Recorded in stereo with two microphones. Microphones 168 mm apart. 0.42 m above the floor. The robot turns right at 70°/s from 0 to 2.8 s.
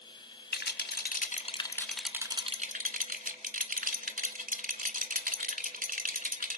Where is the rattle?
75° left (ahead or behind), 1.1 m; by 6.6 s 55° right (ahead or behind), 1.1 m.